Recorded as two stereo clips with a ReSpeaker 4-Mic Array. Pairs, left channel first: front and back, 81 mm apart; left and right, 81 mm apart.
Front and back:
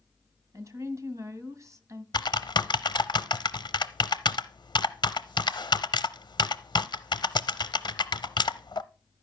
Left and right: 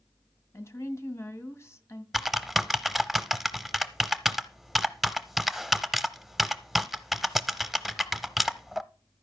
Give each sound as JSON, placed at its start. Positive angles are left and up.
{"t": 0.5, "sound": "a woman speaking", "azimuth_deg": 140, "distance_m": 1.8}
{"t": 2.1, "sound": "typing on a keyboard", "azimuth_deg": 0, "distance_m": 0.6}